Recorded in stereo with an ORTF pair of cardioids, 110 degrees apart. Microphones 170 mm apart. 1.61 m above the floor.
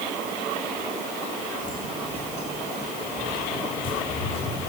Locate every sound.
1.6 s footsteps: 25° left, 5.5 m; by 4.6 s 60° left, 8 m